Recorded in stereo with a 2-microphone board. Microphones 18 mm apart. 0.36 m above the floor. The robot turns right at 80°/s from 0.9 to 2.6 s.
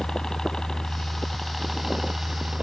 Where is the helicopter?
120° left; by 2.6 s 105° right.